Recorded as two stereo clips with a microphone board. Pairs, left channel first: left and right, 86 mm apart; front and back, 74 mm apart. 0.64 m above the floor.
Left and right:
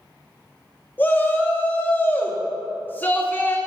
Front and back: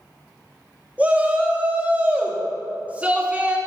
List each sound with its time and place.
1.0 s a shout: 130° left, 0.7 m